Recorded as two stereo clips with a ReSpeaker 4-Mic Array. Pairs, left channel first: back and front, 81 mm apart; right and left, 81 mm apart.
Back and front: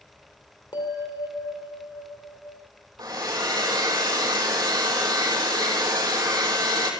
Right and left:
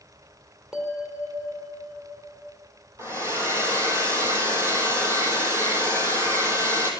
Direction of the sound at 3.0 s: 35° left.